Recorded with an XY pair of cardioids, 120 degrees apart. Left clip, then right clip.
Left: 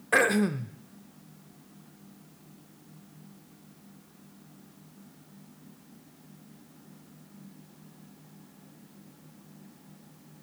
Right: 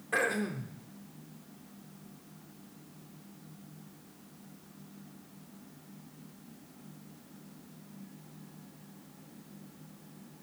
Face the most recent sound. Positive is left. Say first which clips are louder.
# left 7 dB
turn(degrees=50)